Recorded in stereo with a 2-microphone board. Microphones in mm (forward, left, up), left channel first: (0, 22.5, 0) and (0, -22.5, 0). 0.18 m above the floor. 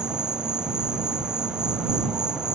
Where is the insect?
20° right (ahead or behind).